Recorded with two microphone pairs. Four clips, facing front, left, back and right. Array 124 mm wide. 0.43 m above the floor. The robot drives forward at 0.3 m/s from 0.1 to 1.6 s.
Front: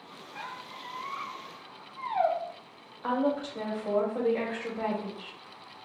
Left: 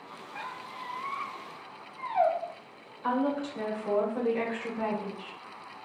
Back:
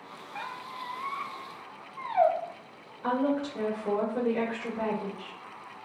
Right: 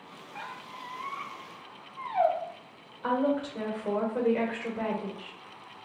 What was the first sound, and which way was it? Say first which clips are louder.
A squeak: left 1 dB, back 3 dB; 175° left.